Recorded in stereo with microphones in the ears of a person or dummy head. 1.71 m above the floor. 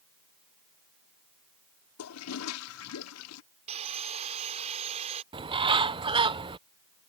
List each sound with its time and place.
2.0 s a toilet flushing: 85° left
3.7 s sawing: 35° right (ahead or behind)
5.3 s a bird: 25° right (ahead or behind)